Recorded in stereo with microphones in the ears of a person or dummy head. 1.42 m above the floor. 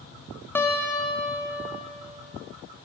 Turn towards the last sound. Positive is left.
turn(degrees=15)  # may be behind; listen again after turning